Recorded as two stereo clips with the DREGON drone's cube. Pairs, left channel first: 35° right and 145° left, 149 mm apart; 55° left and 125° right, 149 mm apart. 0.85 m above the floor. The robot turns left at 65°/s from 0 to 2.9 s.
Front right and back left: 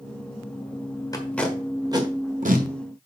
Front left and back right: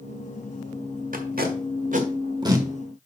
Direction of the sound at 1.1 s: 100° right.